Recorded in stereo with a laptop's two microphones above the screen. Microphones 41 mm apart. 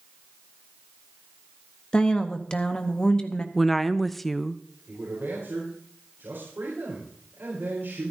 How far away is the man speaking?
About 4 m.